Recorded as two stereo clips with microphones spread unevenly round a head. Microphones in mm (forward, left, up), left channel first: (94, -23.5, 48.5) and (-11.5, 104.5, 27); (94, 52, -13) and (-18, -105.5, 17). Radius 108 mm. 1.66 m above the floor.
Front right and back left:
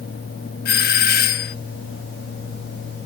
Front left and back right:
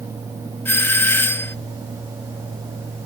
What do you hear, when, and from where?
0.7 s a doorbell: 25° right